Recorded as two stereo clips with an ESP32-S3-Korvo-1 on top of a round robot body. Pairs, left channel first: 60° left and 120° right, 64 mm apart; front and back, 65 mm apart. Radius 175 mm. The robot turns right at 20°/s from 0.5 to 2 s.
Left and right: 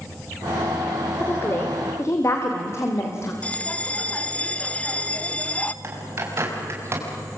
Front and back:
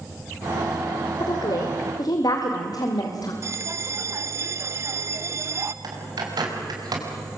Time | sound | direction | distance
1.2 | a woman speaking | straight ahead | 2.5 m
3.4 | a bell | 130° left | 0.8 m
5.8 | a bird | 170° right | 5 m